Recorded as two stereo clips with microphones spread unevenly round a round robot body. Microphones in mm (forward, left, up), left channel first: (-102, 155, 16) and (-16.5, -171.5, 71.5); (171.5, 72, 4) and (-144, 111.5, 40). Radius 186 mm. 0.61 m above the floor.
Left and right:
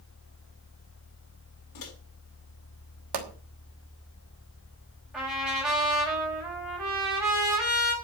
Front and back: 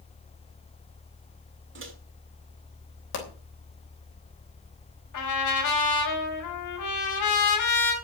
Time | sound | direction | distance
1.8 | a microwave | 120° left | 3.5 m
3.1 | a pop | 60° right | 3 m
5.1 | a trumpet | 15° left | 4 m